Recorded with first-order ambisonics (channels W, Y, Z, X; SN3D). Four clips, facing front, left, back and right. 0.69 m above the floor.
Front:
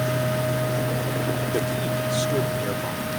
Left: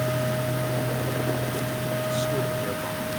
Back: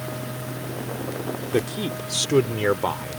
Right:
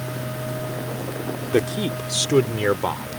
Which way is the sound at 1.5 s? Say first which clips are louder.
Right 6 dB, even; 110° right.